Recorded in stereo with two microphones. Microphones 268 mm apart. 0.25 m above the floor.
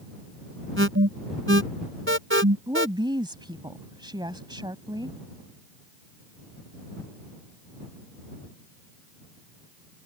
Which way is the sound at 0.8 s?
50° right (ahead or behind).